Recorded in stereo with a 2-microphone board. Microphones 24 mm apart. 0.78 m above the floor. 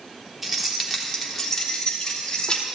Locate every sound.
0.4 s keys jangling: 15° right (ahead or behind), 1.3 m; by 2.6 s 35° left (ahead or behind), 1.6 m